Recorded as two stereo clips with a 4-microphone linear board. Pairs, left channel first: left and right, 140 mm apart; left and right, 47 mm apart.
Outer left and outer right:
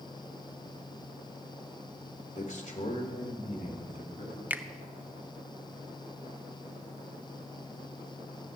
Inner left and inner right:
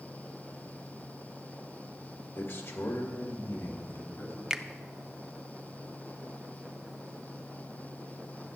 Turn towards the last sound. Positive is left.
turn(degrees=-10)  # may be behind; listen again after turning